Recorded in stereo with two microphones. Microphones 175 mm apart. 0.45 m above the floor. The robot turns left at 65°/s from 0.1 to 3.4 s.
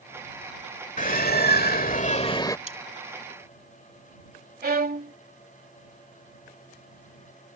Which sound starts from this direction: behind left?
A bird, at 1.0 s.